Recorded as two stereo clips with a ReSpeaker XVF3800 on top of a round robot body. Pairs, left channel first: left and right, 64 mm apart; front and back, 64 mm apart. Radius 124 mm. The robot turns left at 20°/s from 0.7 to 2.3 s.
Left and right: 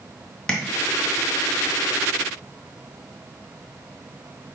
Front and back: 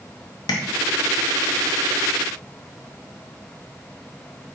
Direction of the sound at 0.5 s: 15° left.